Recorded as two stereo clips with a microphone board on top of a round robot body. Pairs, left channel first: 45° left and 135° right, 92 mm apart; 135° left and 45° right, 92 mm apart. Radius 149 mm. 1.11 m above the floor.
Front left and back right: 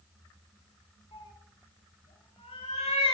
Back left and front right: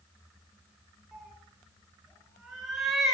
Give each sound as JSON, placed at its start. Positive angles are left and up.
{"t": 1.1, "sound": "a cat meowing", "azimuth_deg": 45, "distance_m": 2.0}